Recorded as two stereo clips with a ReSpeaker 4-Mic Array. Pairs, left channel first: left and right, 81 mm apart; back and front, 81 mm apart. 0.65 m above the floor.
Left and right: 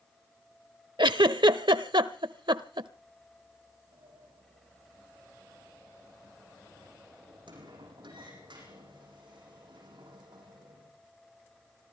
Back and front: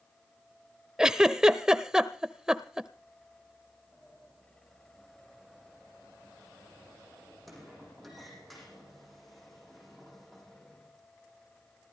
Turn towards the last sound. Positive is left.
turn(degrees=-90)